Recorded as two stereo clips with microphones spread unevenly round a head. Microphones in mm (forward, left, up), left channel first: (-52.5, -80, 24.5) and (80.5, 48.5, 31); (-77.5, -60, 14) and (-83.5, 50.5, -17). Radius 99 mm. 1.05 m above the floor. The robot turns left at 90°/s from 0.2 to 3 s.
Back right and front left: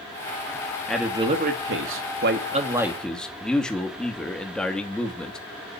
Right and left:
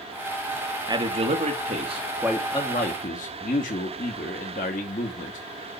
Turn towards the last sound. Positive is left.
turn(degrees=-50)